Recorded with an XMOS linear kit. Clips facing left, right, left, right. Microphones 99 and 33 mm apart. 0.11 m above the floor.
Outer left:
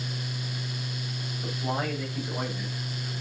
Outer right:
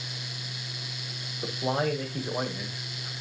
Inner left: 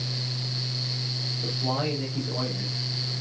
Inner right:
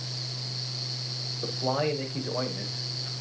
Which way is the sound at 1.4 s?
45° right (ahead or behind).